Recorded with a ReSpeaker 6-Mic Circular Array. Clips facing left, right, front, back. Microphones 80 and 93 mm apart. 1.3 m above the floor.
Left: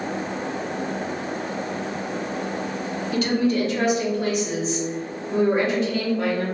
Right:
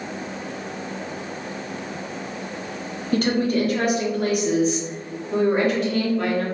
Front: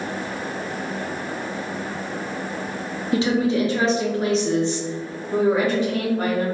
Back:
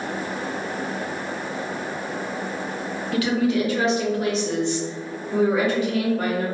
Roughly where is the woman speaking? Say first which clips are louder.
Right 1 dB, front 1 dB; ahead right.